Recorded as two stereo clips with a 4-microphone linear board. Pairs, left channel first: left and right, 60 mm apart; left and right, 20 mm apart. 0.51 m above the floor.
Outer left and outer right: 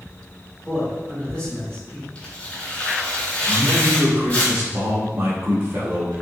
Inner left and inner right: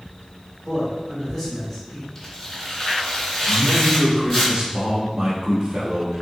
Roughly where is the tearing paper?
Left.